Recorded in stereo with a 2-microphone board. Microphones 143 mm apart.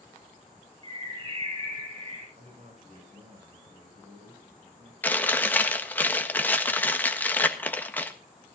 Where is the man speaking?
60° right (ahead or behind), 8 m.